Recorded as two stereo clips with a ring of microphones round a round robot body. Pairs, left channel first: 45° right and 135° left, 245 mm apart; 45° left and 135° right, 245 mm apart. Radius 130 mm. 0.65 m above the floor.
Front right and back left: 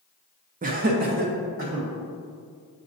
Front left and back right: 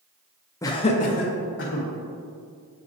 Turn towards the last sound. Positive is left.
turn(degrees=80)